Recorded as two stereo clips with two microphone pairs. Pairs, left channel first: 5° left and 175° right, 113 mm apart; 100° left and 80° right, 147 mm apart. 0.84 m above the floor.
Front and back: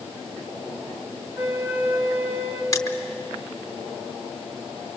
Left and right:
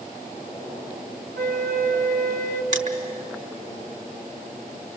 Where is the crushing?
55° right, 1.6 m.